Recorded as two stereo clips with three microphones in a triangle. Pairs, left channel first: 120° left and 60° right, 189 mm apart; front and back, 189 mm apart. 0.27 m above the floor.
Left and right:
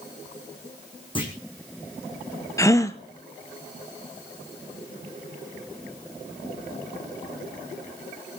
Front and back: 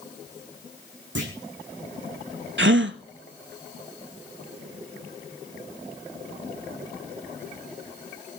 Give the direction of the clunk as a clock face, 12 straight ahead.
6 o'clock.